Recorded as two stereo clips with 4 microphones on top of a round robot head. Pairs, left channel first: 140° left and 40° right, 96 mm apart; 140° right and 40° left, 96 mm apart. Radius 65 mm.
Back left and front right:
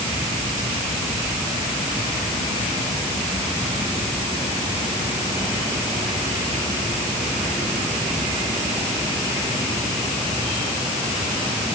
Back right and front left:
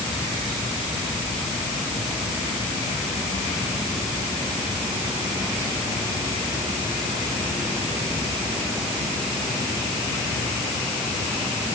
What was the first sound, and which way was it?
Only background noise.